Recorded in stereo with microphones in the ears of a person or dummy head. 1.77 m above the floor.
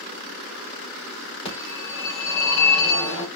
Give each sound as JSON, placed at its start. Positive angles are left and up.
{"t": 1.4, "sound": "a phone ringing", "side_deg": 30, "distance_m": 3.0}